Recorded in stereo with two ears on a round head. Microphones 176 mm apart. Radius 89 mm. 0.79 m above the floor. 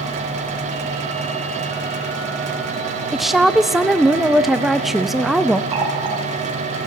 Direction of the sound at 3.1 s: Centre (ahead or behind).